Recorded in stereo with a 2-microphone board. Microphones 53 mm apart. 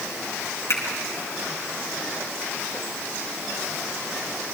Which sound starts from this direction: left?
A finger snap, at 0.7 s.